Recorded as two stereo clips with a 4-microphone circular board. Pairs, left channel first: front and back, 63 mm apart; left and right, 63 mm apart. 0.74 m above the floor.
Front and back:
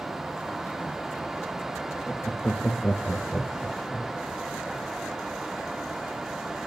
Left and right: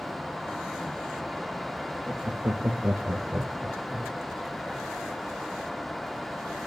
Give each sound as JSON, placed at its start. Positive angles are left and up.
{"t": 2.1, "sound": "laughter", "azimuth_deg": -55, "distance_m": 0.6}